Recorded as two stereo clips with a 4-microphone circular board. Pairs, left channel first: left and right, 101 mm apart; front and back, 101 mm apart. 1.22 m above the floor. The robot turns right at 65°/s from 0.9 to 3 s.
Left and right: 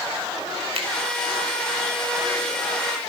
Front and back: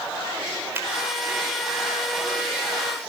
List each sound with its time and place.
0.8 s a finger snap: 110° right, 4 m